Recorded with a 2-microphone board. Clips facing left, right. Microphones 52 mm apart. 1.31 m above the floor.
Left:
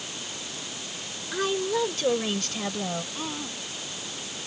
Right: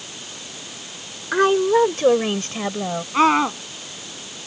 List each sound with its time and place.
1.3 s a woman speaking: 50° right (ahead or behind); by 3.0 s 25° right (ahead or behind)
3.1 s a scream: 80° right